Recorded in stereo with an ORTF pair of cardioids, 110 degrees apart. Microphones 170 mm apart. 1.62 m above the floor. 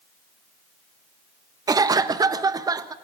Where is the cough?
20° right, 1.2 m.